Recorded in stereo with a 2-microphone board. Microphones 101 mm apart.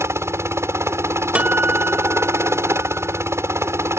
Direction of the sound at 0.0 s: 25° right (ahead or behind).